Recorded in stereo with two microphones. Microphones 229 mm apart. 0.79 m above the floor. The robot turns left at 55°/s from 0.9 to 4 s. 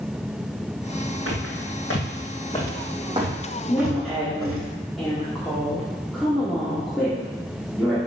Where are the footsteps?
70° left (ahead or behind), 3 m; by 4.6 s 70° right (ahead or behind), 2.5 m.